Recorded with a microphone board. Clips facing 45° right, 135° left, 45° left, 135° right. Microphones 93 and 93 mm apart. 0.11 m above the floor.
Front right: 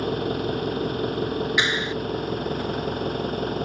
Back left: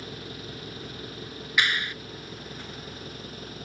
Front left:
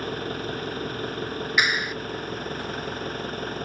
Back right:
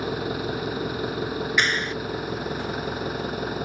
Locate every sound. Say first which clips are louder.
0.0 s an engine running: front right 15 dB, back right 3 dB; 55° right
1.6 s a clap: front right 4 dB, front left 1 dB; 25° right